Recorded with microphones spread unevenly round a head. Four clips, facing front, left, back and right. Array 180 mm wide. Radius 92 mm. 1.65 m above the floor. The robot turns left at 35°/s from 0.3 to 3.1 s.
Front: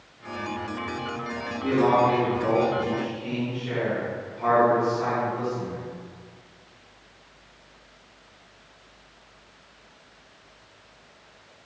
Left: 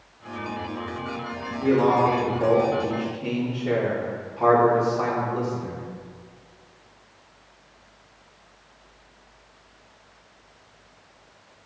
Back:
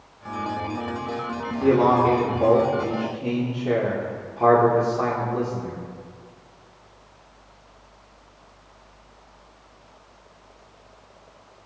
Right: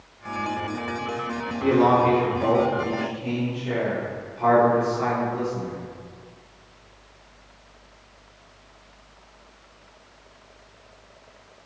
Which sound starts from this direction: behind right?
A man speaking, at 1.6 s.